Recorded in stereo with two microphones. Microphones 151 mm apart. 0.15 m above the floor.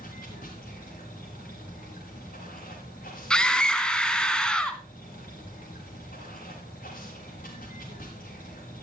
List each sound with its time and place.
0.0 s running water: 75° left (ahead or behind), 6 m
3.3 s a scream: 5° left (ahead or behind), 1.0 m